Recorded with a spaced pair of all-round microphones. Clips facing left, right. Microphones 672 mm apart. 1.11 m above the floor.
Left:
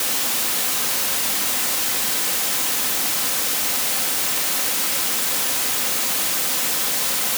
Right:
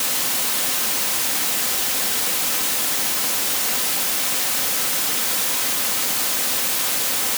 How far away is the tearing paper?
I don't hear tearing paper.